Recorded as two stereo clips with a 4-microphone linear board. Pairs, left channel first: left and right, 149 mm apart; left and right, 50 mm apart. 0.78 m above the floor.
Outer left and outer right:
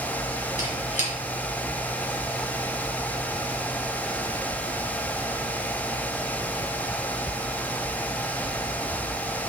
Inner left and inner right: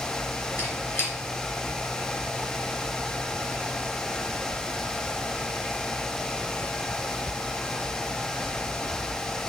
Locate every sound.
0.6 s a squeak: 50° left (ahead or behind), 4.5 m